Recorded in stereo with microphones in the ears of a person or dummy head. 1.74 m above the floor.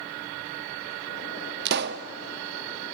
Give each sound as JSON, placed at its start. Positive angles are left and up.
{"t": 1.6, "sound": "a pop", "side_deg": -60, "distance_m": 0.7}